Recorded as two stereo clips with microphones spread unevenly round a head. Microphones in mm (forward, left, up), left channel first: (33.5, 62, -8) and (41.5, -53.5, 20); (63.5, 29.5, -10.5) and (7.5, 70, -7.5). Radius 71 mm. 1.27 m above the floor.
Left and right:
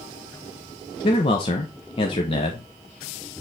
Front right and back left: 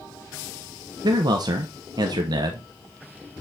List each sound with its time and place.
1.0 s a man speaking: 130° left, 0.8 m